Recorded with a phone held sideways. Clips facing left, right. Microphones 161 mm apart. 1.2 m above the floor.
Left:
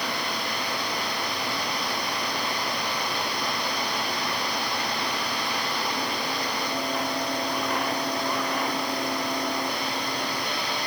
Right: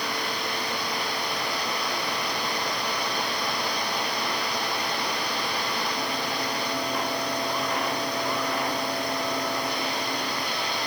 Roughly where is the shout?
No shout in this recording.